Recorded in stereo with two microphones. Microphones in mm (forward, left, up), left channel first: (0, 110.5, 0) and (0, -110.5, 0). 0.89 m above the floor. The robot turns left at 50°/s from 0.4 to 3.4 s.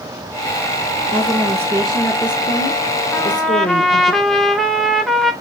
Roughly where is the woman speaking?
Behind right.